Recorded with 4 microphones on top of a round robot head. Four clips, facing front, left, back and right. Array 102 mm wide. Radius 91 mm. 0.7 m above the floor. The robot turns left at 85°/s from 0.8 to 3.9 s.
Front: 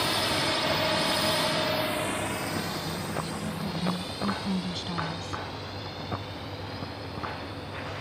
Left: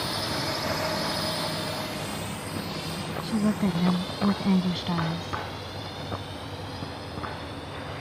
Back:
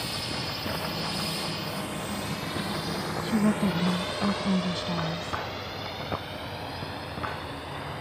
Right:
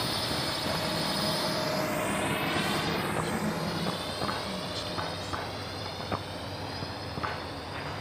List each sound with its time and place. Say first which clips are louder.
0.0 s a drone: left 2 dB, front 7 dB; 5° left; by 8.0 s 160° right
3.2 s a woman speaking: left 5 dB, back 9 dB; 160° left; by 5.4 s 105° left